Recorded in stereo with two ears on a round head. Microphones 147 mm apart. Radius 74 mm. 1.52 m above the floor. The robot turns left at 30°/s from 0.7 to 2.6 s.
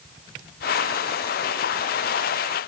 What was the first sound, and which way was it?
Only background noise.